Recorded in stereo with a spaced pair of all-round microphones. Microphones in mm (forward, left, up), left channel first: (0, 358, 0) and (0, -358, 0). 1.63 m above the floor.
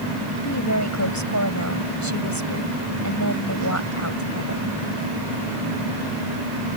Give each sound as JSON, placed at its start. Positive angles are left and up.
{"t": 0.4, "sound": "a woman speaking", "side_deg": 25}